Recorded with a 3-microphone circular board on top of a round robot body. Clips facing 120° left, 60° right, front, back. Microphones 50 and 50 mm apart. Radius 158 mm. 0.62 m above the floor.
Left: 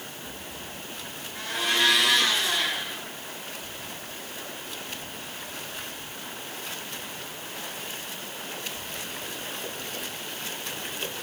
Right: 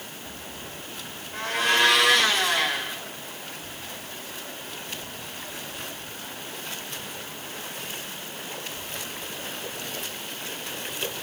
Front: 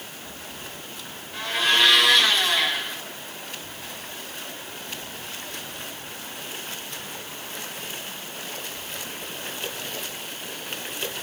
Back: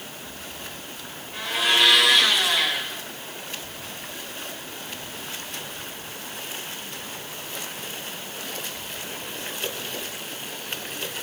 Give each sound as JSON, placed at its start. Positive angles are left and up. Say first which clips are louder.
{"t": 1.3, "sound": "a blender", "louder": "right 4 dB, even", "azimuth_deg": -95, "distance_m": 3.0}